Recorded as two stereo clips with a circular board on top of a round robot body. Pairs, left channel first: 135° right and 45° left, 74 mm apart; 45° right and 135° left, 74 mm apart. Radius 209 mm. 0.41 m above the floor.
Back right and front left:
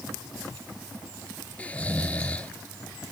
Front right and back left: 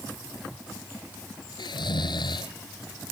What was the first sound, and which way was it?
Snoring, 65° right.